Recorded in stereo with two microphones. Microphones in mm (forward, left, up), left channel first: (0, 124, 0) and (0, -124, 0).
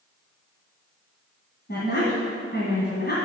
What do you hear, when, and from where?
1.7 s a woman speaking: 45° left (ahead or behind), 1.7 m